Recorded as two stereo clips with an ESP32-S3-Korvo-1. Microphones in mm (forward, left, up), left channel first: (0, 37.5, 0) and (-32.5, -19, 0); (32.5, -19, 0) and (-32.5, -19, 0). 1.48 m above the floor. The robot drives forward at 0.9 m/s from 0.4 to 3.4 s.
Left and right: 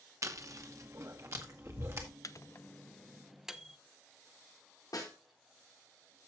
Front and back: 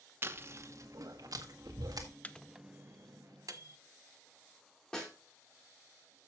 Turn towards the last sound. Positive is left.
turn(degrees=80)